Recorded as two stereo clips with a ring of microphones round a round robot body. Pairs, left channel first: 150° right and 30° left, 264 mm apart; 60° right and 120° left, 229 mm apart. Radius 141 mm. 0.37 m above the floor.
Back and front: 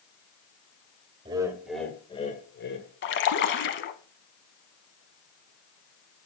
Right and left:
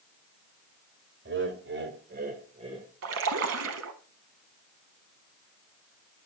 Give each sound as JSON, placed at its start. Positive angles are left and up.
{"t": 1.2, "sound": "laughter", "azimuth_deg": 100, "distance_m": 1.8}
{"t": 3.0, "sound": "a splash", "azimuth_deg": 160, "distance_m": 0.8}